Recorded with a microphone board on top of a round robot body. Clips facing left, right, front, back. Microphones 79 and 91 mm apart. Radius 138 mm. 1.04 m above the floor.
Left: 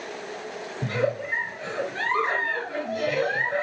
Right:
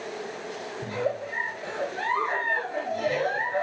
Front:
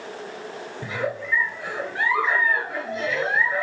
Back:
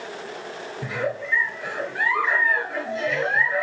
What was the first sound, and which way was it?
A giggle, 85° left.